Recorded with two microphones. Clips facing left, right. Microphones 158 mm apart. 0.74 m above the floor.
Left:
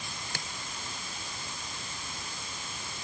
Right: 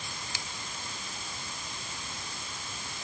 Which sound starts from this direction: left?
A finger snap, at 0.3 s.